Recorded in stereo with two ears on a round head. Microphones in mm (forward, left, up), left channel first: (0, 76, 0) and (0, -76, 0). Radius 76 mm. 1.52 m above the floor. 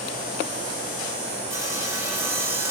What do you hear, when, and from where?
1.5 s sawing: 20° right (ahead or behind), 1.7 m